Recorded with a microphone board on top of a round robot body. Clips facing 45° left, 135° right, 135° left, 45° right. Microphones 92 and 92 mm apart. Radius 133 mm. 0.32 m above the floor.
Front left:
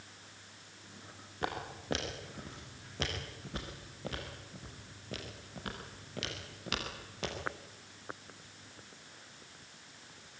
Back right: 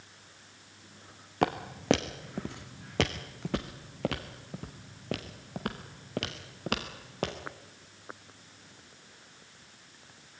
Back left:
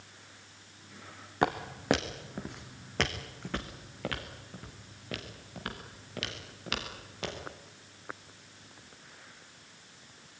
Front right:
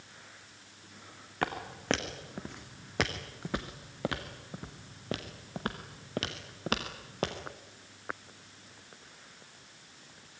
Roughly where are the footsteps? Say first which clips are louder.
Back right 9 dB, back left 5 dB; behind right.